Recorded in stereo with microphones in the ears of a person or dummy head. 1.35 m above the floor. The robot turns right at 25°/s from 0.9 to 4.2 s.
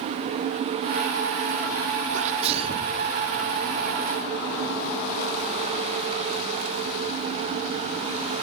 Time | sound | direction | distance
2.1 | a sneeze | 45° right (ahead or behind) | 0.7 m